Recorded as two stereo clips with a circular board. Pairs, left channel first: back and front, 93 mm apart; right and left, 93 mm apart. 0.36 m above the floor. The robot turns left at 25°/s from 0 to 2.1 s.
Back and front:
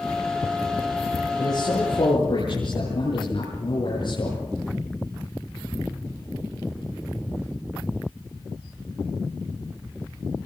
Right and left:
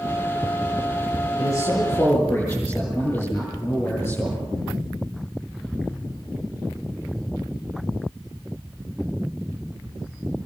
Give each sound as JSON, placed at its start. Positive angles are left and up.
{"t": 1.4, "sound": "a man speaking", "azimuth_deg": -135, "distance_m": 8.0}